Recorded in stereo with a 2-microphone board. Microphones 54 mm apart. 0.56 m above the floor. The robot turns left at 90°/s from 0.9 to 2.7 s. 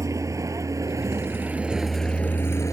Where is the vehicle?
75° right (ahead or behind); by 2.7 s 65° left (ahead or behind).